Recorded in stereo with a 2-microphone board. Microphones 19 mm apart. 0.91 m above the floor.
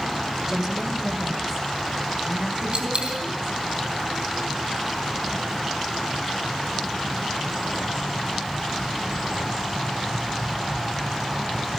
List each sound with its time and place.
0.5 s a woman speaking: 15° right (ahead or behind), 3 m; by 3.5 s 20° right (ahead or behind), 7.5 m
2.7 s a dropped coin: 50° right (ahead or behind), 4.5 m